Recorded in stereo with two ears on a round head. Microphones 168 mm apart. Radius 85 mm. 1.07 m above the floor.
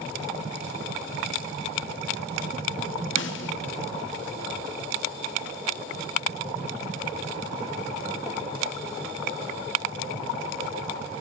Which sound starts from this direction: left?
A snare drum, at 3.2 s.